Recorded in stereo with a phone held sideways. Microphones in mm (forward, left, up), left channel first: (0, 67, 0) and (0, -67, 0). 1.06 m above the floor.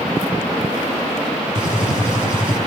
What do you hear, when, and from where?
1.6 s a gunshot: 10° right (ahead or behind), 7 m